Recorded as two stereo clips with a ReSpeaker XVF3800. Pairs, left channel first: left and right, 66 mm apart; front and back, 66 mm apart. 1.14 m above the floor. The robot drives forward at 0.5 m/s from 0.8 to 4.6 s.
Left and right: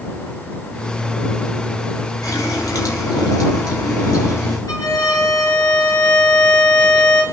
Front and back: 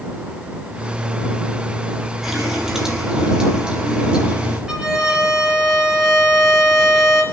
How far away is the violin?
About 3 m.